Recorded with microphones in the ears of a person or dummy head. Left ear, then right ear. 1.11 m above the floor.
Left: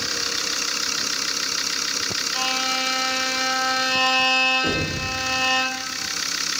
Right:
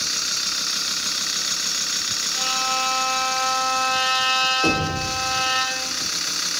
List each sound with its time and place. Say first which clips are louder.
2.3 s a violin: even; 65° left (ahead or behind), 2.5 m
4.6 s knocking: right 3 dB; 75° right (ahead or behind), 1.8 m